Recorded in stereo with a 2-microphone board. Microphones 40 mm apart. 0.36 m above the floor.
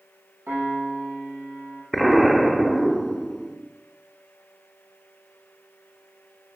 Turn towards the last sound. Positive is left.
turn(degrees=-5)  # may be behind; listen again after turning